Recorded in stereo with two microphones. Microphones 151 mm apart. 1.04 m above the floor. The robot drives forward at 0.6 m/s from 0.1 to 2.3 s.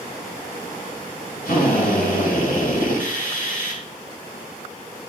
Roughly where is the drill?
Left.